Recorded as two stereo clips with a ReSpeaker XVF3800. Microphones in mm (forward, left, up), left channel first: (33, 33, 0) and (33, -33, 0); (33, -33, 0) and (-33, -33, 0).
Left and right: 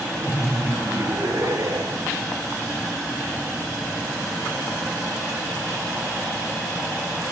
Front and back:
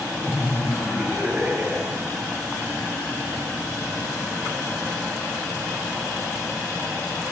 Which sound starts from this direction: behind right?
Laughter, at 0.2 s.